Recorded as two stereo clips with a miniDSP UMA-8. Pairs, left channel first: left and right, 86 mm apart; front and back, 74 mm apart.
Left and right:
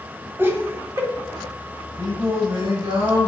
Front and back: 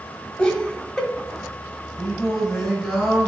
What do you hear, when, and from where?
0.4 s laughter: 65° right, 1.3 m
2.0 s singing: 90° right, 3.5 m